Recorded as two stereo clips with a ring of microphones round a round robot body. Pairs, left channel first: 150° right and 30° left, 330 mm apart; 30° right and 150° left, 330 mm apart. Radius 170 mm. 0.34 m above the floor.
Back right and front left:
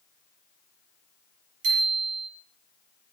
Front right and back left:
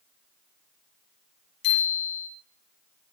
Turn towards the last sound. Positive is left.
turn(degrees=-5)